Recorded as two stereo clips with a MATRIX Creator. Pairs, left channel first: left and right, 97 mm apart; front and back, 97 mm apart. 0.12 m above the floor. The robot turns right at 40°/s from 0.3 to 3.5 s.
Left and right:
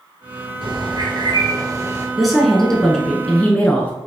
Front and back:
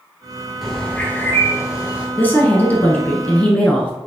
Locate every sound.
0.6 s a bird: 85° right, 1.4 m; by 2.1 s 30° right, 1.4 m
2.2 s a woman speaking: 5° right, 1.1 m; by 3.9 s 50° left, 1.1 m